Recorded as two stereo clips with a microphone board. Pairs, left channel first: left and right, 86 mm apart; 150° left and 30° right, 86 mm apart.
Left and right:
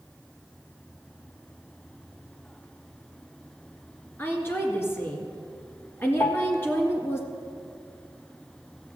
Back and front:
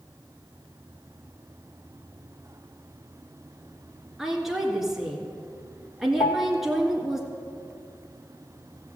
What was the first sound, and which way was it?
A woman speaking, 55° left.